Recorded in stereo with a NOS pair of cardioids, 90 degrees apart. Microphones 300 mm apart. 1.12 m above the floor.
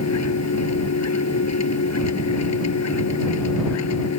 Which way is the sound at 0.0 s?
65° left.